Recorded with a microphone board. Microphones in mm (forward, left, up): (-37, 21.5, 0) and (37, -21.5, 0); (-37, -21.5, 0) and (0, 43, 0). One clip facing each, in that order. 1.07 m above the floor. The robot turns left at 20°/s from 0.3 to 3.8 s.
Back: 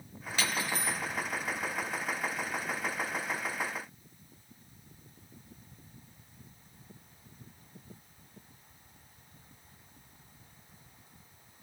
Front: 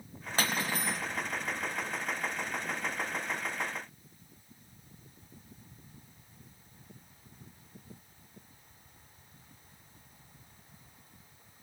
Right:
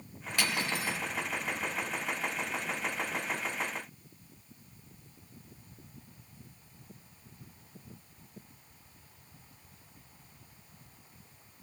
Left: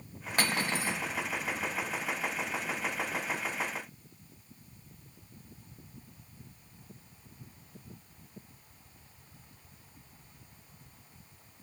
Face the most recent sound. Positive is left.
turn(degrees=-50)